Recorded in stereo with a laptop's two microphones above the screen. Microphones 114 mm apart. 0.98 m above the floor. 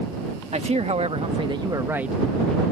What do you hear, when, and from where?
0.5 s a man speaking: 75° right (ahead or behind); by 2.6 s 15° left (ahead or behind)